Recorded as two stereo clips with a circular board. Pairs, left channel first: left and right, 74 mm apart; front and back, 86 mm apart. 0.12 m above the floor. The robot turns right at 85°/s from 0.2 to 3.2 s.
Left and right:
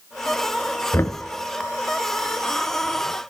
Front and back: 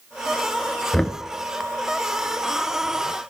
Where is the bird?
No bird in this recording.